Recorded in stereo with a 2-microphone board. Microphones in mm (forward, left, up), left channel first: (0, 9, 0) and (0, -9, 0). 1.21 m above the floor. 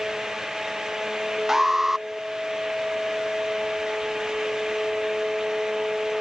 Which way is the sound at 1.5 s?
25° right (ahead or behind).